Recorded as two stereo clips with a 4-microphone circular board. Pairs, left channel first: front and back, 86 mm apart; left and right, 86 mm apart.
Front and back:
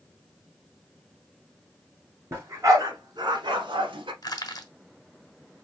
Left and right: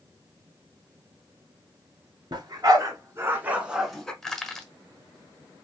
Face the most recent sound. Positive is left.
turn(degrees=10)